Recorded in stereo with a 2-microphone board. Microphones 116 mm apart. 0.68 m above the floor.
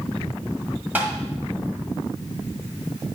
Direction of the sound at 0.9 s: 15° right (ahead or behind).